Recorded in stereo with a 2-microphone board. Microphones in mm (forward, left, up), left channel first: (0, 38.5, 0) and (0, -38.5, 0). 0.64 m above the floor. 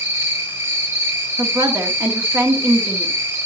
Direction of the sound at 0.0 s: 30° right (ahead or behind).